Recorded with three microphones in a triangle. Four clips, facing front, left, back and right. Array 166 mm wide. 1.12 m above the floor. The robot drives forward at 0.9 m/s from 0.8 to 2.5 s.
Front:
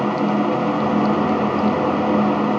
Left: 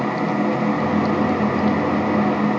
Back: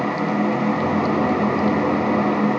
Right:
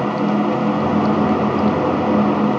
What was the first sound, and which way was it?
Only background noise.